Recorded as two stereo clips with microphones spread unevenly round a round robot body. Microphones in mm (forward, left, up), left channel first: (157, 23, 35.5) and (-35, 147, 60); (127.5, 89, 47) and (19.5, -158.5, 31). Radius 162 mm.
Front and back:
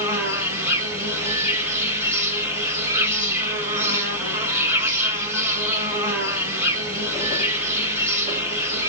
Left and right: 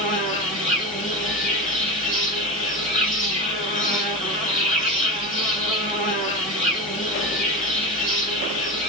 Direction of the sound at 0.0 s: 65° left.